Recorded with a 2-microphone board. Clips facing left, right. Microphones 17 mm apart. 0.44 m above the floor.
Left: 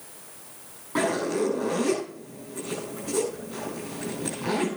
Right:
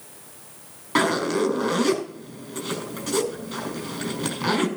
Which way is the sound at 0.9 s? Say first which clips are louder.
Right 4 dB; 75° right (ahead or behind).